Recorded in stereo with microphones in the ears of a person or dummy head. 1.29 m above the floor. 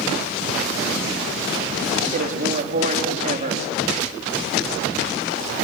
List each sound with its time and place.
2.1 s a man speaking: 45° right (ahead or behind), 2.5 m